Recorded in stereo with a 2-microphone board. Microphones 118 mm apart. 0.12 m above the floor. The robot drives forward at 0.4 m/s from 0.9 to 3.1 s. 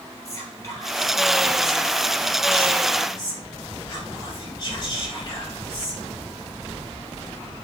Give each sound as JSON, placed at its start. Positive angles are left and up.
{"t": 0.2, "sound": "whispering", "side_deg": 25, "distance_m": 1.4}